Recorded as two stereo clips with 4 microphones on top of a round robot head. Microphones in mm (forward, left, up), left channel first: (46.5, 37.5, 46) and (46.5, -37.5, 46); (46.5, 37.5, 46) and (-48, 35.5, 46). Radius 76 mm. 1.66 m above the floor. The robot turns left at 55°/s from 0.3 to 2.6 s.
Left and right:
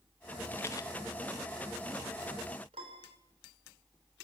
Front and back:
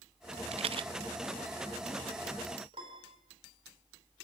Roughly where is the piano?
Behind right.